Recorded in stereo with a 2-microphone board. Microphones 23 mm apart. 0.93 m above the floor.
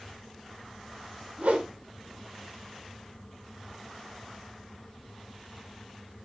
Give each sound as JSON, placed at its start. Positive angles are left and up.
{"t": 1.4, "sound": "a whoosh", "side_deg": -80, "distance_m": 3.5}